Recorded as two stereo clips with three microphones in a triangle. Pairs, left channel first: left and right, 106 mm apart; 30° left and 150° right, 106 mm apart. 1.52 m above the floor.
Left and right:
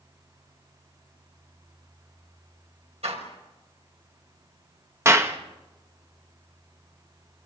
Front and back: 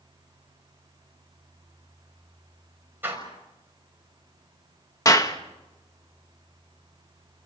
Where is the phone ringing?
No phone ringing in this recording.